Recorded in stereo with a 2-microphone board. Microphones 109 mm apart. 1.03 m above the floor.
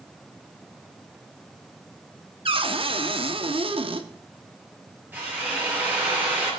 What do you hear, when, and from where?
2.5 s a cupboard door: 55° right (ahead or behind), 1.2 m
5.1 s a drill: 20° right (ahead or behind), 6 m